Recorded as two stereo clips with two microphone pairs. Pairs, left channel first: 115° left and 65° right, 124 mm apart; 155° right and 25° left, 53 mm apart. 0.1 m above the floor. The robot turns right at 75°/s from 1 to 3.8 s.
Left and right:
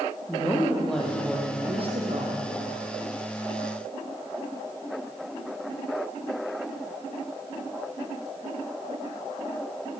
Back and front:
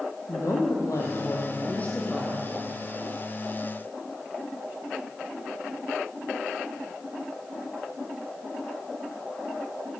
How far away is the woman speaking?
About 3.5 m.